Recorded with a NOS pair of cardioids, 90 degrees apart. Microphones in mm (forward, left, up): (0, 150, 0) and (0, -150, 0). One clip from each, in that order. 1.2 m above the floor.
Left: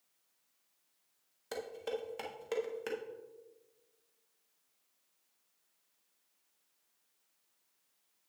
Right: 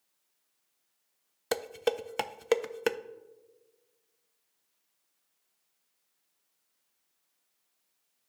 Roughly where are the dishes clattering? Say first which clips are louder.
Right 9 dB; ahead right.